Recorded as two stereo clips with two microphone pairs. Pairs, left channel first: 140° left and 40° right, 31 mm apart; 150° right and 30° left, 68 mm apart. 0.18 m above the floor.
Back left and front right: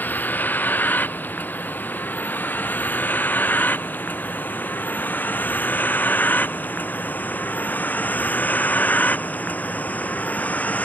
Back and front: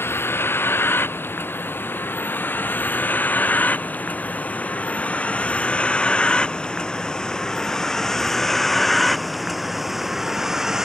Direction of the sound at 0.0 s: 155° left.